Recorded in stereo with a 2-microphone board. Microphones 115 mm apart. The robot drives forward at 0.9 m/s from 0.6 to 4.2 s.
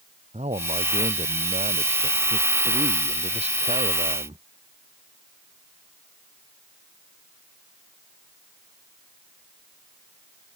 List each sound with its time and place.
0.3 s a man speaking: 70° right (ahead or behind); by 4.4 s 60° right (ahead or behind)